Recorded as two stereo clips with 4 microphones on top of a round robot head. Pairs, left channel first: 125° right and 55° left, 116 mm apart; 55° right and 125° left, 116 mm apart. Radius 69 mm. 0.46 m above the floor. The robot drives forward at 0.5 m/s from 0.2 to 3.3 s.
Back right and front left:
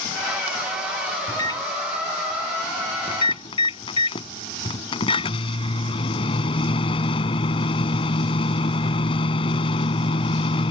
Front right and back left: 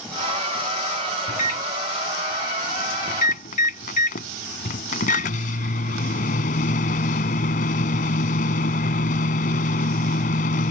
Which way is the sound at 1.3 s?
65° right.